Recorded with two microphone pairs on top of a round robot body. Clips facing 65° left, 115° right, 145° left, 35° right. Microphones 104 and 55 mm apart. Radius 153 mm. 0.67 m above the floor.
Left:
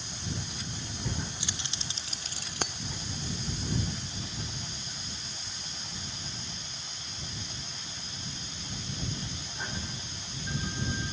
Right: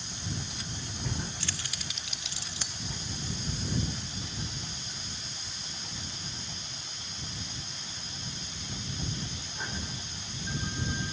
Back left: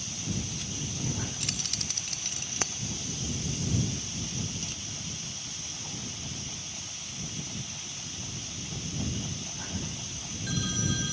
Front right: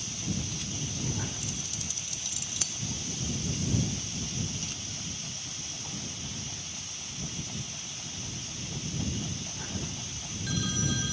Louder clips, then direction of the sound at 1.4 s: Even, back left 1 dB; 140° left.